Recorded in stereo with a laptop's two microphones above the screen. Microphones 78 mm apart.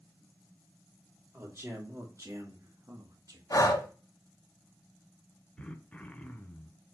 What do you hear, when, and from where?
1.3 s a man speaking: 35° right (ahead or behind), 3 m; by 3.4 s 55° right (ahead or behind), 1.9 m
3.5 s breathing: 50° left (ahead or behind), 1.0 m
5.6 s throat clearing: 15° left (ahead or behind), 0.8 m